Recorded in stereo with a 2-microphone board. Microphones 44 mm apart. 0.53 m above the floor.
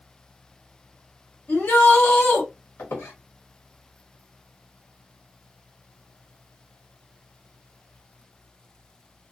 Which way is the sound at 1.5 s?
55° left (ahead or behind).